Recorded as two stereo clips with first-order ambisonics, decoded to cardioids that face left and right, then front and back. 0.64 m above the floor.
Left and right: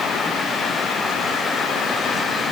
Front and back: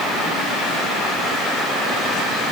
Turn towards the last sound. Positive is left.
No sound to turn to.